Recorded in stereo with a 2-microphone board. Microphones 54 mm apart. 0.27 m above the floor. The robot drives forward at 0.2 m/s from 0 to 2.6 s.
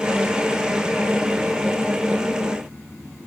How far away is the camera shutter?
I don't hear a camera shutter.